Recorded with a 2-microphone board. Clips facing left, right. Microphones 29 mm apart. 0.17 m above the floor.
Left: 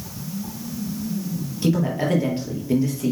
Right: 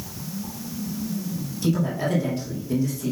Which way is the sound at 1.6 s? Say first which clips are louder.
Left 3 dB; 35° left (ahead or behind).